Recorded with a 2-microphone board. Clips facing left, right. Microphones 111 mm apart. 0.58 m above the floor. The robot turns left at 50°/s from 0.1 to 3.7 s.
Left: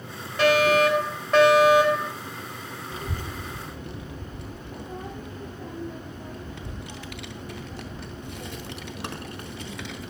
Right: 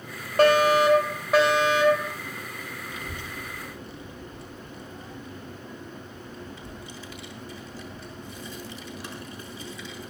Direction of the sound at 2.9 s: 30° left (ahead or behind).